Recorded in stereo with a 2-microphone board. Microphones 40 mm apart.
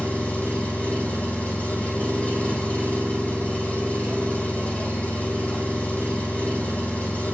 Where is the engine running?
35° left (ahead or behind), 3 m.